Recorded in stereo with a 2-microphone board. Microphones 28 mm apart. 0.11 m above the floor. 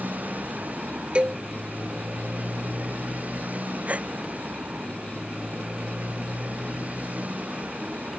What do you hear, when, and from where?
0.0 s a motorcycle: 70° right (ahead or behind); by 8.2 s 60° right (ahead or behind)
1.1 s a cowbell: 40° right (ahead or behind)
3.9 s a gasp: 55° right (ahead or behind)